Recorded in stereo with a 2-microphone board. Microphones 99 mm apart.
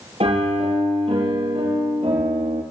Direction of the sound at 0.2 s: 80° right.